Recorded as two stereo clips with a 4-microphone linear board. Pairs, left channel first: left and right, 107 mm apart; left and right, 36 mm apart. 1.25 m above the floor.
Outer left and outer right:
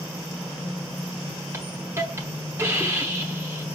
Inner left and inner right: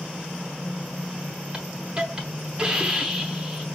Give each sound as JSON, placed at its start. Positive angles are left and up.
{"t": 1.5, "sound": "a hiss", "side_deg": -25, "distance_m": 0.9}